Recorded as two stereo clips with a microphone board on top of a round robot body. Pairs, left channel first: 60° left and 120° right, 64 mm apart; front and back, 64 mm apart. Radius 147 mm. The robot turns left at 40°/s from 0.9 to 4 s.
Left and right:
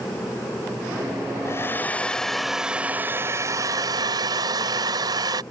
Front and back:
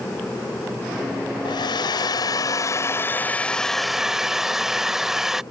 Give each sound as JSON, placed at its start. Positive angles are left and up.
{"t": 1.4, "sound": "a hair dryer", "azimuth_deg": 5}